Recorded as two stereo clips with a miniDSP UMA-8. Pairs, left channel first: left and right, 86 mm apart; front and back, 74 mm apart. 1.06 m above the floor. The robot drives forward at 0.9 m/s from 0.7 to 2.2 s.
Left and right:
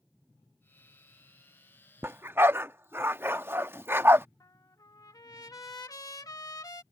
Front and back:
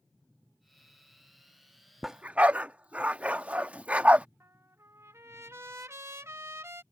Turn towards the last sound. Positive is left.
turn(degrees=130)